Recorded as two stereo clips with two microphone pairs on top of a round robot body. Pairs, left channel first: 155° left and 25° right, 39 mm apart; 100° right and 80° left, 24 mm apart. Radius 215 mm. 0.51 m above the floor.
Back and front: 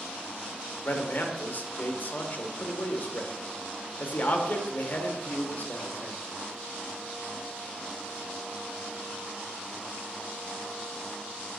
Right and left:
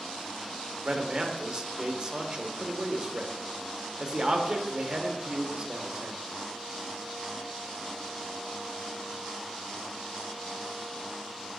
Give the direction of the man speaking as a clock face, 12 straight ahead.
8 o'clock.